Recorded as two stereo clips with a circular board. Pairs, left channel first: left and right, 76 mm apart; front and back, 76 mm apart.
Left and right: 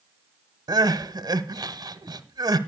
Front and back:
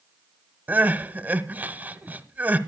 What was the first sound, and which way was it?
Crying, 115° right.